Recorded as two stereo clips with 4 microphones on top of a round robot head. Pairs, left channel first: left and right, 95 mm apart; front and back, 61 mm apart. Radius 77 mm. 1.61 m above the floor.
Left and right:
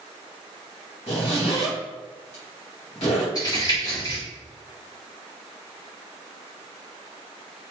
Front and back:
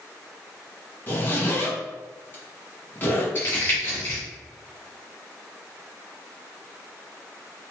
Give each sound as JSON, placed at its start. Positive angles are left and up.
{"t": 1.1, "sound": "a zipper", "azimuth_deg": 55, "distance_m": 1.6}
{"t": 3.4, "sound": "crumpling", "azimuth_deg": 35, "distance_m": 1.3}